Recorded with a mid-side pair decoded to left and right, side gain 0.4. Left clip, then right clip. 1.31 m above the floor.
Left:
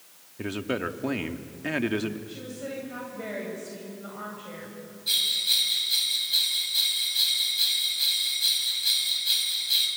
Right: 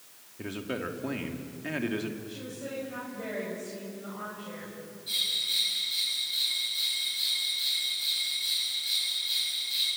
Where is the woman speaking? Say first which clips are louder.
Left 2 dB; 30° left, 8.5 m.